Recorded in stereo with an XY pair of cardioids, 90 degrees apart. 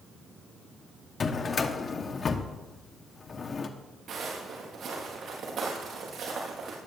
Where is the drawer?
50° left, 1.2 m.